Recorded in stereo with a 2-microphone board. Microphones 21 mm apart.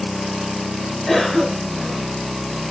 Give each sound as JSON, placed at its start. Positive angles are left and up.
{"t": 1.1, "sound": "a cough", "side_deg": 20, "distance_m": 1.1}